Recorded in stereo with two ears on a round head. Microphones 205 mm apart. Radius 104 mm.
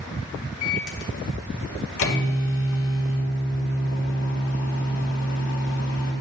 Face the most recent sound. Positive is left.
turn(degrees=60)  # may be behind; listen again after turning